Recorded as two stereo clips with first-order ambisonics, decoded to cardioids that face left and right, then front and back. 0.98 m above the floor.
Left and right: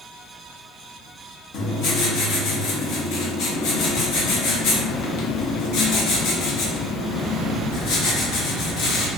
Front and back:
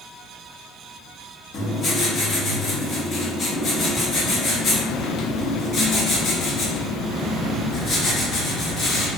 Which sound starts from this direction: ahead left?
Writing, at 1.5 s.